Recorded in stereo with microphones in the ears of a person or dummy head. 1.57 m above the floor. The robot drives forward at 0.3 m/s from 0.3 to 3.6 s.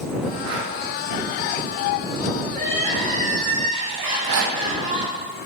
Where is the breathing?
60° right (ahead or behind), 1.8 m; by 0.7 s 55° right (ahead or behind), 1.8 m.